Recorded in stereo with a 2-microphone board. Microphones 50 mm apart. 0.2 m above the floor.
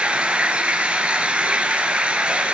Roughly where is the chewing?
No chewing in this recording.